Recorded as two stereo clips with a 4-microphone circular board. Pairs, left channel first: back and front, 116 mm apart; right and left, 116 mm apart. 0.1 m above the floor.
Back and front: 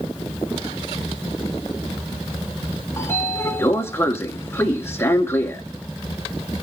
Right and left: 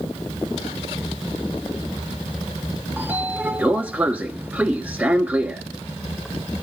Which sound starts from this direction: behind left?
A sliding door, at 3.0 s.